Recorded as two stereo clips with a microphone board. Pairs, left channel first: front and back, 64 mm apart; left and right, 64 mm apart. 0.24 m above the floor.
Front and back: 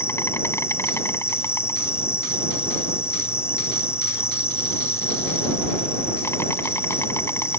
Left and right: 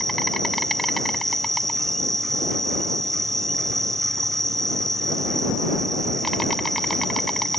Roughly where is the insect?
Ahead.